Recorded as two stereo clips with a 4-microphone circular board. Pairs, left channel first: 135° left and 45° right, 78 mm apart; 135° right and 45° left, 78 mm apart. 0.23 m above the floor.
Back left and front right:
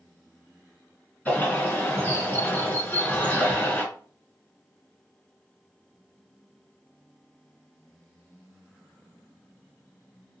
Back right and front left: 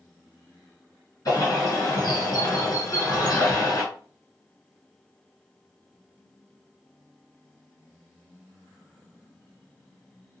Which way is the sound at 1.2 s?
165° right.